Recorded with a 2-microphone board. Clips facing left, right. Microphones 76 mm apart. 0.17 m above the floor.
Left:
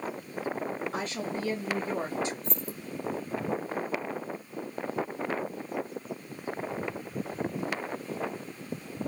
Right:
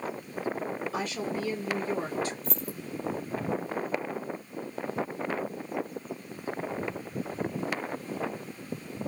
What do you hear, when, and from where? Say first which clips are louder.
0.9 s a woman speaking: right 1 dB; 40° left (ahead or behind), 1.7 m; by 2.3 s 20° left (ahead or behind), 1.2 m
2.4 s keys jangling: right 1 dB; 5° right (ahead or behind), 2.5 m